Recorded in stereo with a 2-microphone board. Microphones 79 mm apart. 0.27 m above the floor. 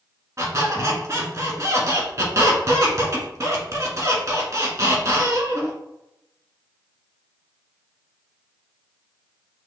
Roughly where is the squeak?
Right.